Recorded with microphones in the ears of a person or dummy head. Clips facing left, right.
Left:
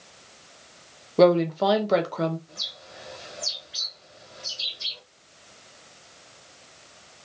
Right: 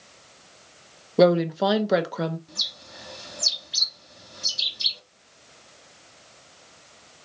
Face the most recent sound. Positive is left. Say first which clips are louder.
# even
turn(degrees=-50)  # may be behind; listen again after turning